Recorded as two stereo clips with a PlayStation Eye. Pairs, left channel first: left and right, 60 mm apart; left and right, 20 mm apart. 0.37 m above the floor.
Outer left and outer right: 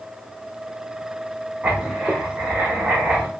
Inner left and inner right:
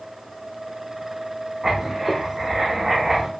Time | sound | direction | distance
1.6 | writing | 25° right (ahead or behind) | 1.2 m